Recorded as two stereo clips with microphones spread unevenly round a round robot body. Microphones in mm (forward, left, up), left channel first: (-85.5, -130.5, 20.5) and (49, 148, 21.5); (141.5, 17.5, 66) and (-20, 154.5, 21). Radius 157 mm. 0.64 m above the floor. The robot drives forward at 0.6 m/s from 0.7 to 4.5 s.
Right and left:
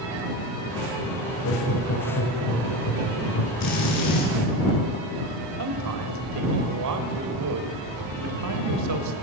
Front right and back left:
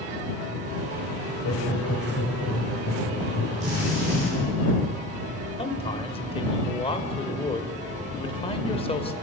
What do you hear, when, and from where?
1.2 s laughter: 65° right, 3.5 m; by 3.5 s 90° right, 3 m
3.6 s a drill: 155° right, 7.5 m
5.6 s a man speaking: 30° left, 2.5 m